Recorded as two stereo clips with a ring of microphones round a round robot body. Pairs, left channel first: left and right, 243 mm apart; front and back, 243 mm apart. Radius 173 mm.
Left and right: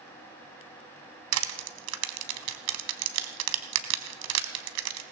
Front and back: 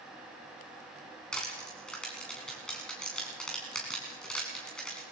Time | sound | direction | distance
1.3 | crushing | 90° right | 1.2 m